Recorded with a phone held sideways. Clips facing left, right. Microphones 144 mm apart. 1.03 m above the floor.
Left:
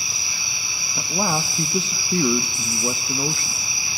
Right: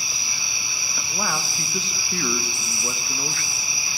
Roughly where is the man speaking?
Left.